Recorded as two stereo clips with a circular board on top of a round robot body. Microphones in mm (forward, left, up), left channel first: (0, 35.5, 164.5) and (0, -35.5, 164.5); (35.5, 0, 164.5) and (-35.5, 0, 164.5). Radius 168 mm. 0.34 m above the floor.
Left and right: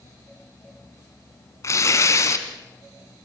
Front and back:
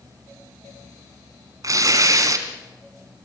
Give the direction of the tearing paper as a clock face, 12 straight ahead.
7 o'clock.